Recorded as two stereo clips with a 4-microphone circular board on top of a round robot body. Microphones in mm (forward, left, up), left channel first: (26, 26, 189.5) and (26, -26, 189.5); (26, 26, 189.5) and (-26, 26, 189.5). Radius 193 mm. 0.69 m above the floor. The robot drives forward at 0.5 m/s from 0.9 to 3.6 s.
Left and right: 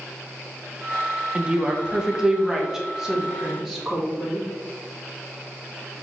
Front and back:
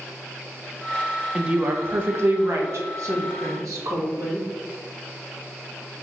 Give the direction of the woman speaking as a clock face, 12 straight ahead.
4 o'clock.